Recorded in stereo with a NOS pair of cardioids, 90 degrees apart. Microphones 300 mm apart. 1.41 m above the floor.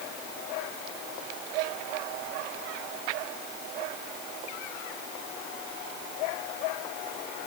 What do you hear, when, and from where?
Only background noise.